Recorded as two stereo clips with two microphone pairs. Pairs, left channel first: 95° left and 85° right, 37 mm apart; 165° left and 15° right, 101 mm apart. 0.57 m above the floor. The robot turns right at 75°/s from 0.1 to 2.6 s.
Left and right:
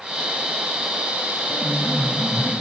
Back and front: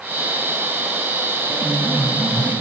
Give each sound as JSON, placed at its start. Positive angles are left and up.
{"t": 1.5, "sound": "a piano", "azimuth_deg": 70, "distance_m": 3.5}